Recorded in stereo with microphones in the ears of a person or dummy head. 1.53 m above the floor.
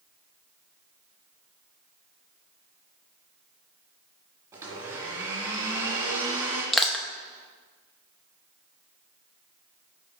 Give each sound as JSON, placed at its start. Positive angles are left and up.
{"t": 4.5, "sound": "a blender", "side_deg": -20, "distance_m": 1.9}
{"t": 6.7, "sound": "crushing", "side_deg": 0, "distance_m": 0.7}